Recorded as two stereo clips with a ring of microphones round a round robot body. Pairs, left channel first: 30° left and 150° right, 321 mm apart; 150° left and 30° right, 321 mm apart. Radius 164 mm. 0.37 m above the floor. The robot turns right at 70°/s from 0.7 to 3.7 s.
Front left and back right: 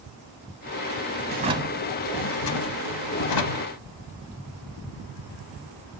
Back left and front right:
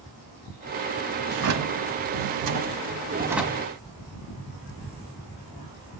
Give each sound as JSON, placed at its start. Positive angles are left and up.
{"t": 1.3, "sound": "a drawer", "azimuth_deg": -90, "distance_m": 0.9}